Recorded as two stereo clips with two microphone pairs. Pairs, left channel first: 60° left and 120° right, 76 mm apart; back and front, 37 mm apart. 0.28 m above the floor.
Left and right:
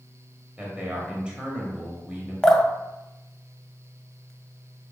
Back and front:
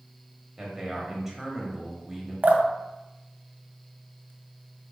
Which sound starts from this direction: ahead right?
A man speaking, at 0.6 s.